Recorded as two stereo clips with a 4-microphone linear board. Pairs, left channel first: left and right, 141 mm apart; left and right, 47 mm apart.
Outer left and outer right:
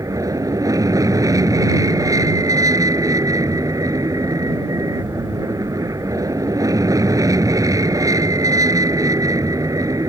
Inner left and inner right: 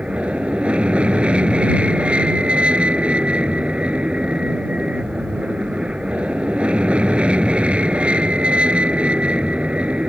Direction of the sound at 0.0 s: 25° right (ahead or behind).